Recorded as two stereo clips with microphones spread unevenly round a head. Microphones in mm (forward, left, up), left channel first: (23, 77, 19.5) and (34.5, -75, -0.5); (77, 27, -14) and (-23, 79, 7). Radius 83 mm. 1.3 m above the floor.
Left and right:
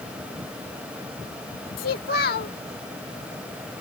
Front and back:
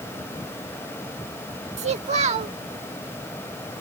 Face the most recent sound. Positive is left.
turn(degrees=135)